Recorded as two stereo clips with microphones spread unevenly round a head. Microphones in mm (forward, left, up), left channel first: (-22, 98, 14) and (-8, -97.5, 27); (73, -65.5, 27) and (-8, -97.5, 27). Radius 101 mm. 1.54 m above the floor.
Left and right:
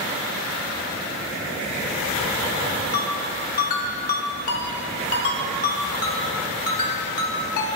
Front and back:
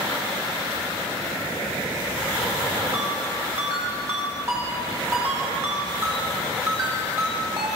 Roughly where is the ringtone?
Behind left.